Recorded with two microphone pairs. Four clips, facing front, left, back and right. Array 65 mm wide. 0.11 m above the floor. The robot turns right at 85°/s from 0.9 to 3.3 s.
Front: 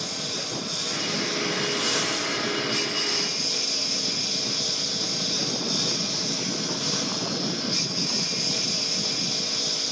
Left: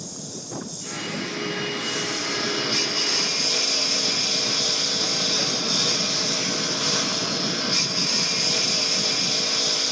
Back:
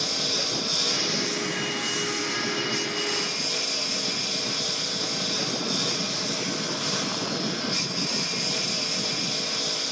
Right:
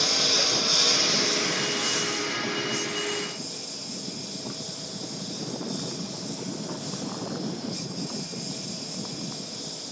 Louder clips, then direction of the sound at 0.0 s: Right 10 dB, back 3 dB; 95° right.